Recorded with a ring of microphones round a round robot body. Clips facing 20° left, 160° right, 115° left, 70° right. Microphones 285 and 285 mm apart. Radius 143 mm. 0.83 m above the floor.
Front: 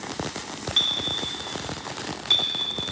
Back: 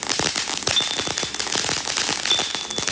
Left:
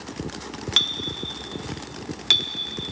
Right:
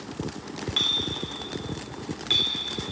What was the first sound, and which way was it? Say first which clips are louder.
A clink: back 3 dB, right 1 dB; 140° left.